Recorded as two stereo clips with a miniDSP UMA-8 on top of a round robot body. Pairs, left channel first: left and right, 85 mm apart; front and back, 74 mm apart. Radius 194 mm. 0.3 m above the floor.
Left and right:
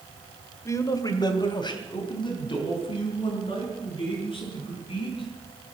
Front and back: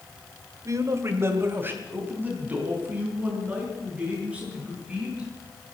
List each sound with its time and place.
0.7 s a man speaking: 140° left, 1.9 m; by 5.3 s 105° left, 8.5 m